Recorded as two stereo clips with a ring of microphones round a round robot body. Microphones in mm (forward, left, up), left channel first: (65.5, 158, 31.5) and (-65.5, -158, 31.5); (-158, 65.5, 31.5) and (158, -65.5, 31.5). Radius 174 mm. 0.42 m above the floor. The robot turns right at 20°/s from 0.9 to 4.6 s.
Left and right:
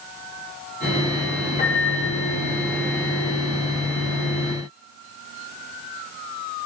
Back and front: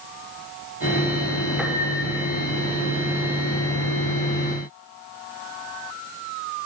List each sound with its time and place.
1.6 s a piano: 60° left, 1.3 m; by 2.3 s 75° left, 1.3 m